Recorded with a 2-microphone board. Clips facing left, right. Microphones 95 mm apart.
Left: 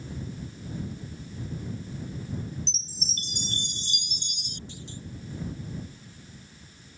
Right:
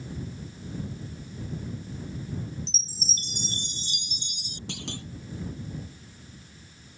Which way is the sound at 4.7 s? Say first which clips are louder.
Right 9 dB; 75° right (ahead or behind).